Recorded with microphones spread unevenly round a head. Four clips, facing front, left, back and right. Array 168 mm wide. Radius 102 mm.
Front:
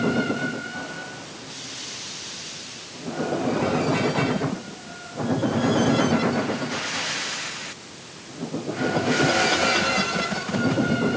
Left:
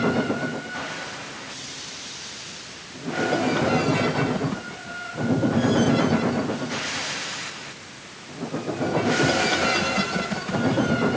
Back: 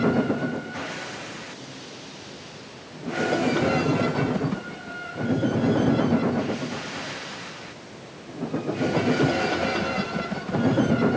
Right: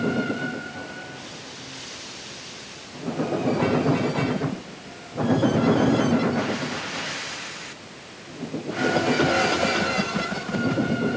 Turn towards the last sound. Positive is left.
No sound to turn to.